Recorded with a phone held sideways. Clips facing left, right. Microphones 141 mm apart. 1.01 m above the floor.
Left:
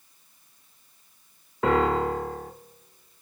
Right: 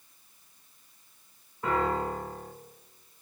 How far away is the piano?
About 1.0 m.